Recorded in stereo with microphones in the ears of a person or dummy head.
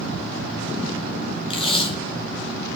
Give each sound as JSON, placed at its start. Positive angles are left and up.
{"t": 1.5, "sound": "tape being pulled", "side_deg": 35, "distance_m": 0.7}